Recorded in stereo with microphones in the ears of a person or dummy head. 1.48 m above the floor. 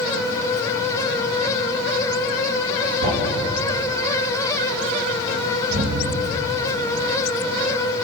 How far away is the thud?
About 3 m.